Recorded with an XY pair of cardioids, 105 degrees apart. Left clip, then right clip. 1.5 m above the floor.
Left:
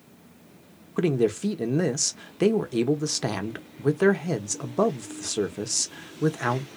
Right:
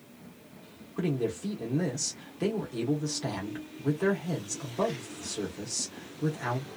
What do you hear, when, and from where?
1.0 s a man speaking: 65° left, 0.8 m